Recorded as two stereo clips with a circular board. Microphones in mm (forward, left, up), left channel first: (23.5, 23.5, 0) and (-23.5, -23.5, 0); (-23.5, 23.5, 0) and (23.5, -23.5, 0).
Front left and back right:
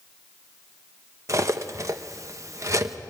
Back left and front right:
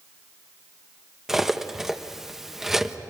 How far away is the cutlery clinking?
About 1.0 m.